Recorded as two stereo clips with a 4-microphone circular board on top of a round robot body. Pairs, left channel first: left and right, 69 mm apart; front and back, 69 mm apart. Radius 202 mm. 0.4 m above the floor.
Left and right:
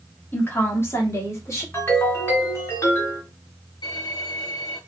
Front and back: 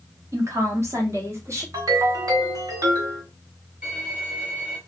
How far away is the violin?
About 1.9 m.